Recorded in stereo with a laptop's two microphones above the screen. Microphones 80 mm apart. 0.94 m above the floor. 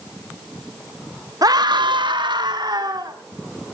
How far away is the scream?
About 1.2 m.